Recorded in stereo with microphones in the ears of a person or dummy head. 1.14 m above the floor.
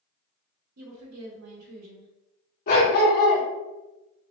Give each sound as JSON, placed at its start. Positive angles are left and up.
{"t": 0.8, "sound": "a woman speaking", "side_deg": -75, "distance_m": 1.0}
{"t": 2.7, "sound": "a dog barking", "side_deg": 35, "distance_m": 0.8}